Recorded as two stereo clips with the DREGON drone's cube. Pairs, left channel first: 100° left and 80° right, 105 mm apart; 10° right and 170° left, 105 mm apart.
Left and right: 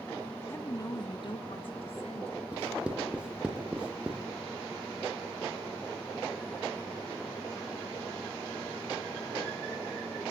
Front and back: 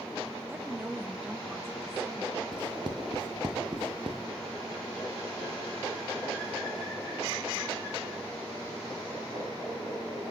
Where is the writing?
155° right, 2.5 m.